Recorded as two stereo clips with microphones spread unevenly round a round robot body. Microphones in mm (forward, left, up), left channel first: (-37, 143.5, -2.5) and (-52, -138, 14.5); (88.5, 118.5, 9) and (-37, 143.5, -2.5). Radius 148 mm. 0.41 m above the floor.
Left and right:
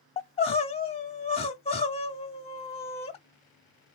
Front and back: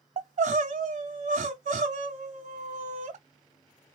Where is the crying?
155° left, 0.6 m.